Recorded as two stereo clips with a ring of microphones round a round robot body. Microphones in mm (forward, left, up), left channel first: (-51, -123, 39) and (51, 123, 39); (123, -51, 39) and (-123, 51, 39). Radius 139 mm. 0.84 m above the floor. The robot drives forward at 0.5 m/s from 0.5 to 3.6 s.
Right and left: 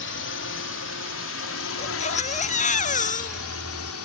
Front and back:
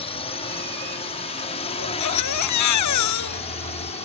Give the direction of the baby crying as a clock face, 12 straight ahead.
2 o'clock.